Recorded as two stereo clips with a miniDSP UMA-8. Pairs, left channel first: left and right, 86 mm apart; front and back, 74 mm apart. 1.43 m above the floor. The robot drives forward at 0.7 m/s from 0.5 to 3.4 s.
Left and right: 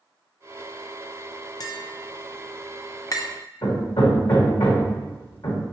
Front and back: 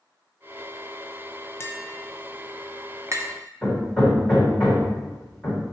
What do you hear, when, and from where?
1.6 s tapping: 55° left, 0.8 m; by 3.2 s 135° left, 1.0 m
3.6 s hammering: 95° left, 2.5 m